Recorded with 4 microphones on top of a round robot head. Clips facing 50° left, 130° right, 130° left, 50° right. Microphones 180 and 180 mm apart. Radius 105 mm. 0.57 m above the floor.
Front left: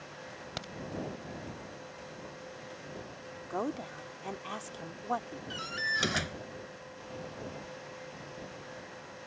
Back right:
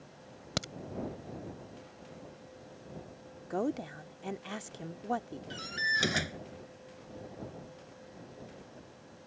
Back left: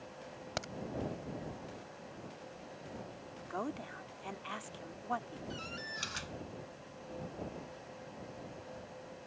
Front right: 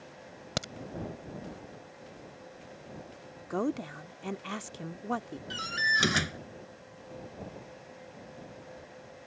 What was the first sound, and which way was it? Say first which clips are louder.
A crack: back right 7 dB, front right 5 dB; 100° right.